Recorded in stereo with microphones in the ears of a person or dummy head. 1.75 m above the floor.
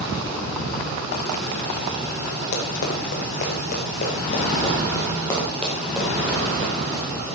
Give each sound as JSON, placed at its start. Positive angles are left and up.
{"t": 2.5, "sound": "running footsteps", "side_deg": 55, "distance_m": 3.0}